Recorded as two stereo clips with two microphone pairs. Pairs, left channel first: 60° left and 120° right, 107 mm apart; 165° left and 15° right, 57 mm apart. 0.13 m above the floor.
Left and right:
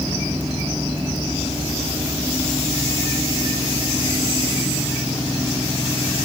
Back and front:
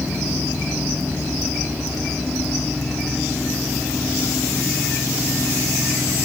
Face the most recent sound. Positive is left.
No sound to turn to.